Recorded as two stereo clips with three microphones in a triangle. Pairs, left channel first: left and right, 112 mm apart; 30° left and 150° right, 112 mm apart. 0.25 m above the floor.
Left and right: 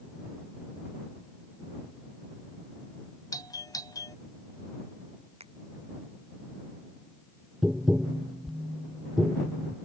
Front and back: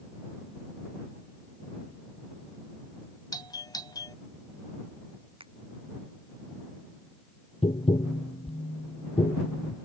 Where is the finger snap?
115° right.